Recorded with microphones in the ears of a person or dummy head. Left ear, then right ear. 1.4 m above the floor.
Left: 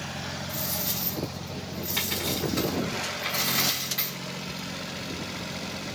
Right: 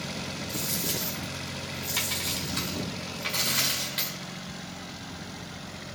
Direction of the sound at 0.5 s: 5° right (ahead or behind).